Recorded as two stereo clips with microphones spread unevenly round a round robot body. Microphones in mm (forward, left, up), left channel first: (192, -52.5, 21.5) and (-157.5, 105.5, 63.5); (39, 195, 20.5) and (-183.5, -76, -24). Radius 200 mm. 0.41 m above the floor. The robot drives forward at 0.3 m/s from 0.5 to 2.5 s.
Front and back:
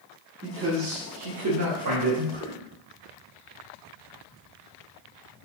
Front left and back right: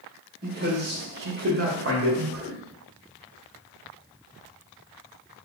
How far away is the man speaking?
About 0.9 m.